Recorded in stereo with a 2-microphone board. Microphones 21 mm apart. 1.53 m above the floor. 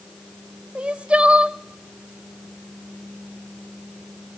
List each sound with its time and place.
0.8 s crying: 65° right (ahead or behind), 0.7 m